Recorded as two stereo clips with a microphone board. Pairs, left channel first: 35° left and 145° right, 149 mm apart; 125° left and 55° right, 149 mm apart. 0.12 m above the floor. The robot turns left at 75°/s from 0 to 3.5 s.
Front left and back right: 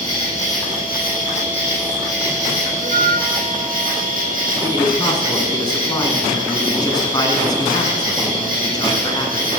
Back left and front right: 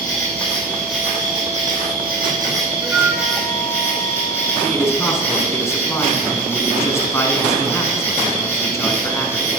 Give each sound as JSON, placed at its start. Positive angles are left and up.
{"t": 0.0, "sound": "an insect", "azimuth_deg": 105, "distance_m": 4.5}
{"t": 2.8, "sound": "a flute", "azimuth_deg": -125, "distance_m": 0.6}
{"t": 4.6, "sound": "a man speaking", "azimuth_deg": 70, "distance_m": 1.5}